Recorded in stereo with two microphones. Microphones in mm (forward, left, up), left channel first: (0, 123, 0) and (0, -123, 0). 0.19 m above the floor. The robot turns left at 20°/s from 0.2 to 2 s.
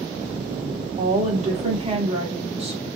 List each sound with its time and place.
1.0 s a woman speaking: 30° right (ahead or behind), 1.2 m; by 2.8 s 25° right (ahead or behind), 1.2 m